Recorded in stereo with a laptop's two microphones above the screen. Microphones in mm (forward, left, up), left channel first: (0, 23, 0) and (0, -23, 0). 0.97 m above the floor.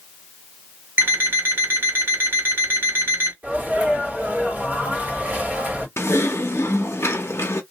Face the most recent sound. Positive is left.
turn(degrees=80)